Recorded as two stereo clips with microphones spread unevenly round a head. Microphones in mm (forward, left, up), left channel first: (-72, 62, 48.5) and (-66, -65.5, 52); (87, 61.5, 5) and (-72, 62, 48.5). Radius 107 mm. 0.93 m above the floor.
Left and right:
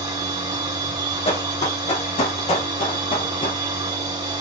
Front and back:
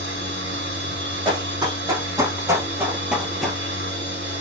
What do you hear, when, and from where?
0.0 s a machine running: 140° right, 2.5 m
1.2 s running footsteps: 125° left, 2.5 m; by 3.6 s 105° left, 1.0 m